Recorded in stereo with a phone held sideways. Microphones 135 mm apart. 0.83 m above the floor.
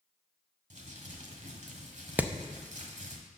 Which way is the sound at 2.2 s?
10° right (ahead or behind).